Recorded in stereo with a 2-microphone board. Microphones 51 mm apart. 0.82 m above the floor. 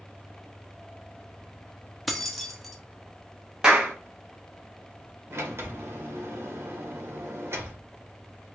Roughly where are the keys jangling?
Centre.